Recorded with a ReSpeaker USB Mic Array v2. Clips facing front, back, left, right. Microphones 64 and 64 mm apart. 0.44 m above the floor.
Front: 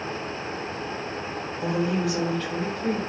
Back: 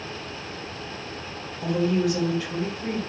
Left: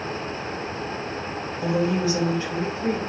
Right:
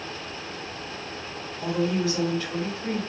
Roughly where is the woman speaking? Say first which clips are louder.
Back 2 dB, left 2 dB; ahead left.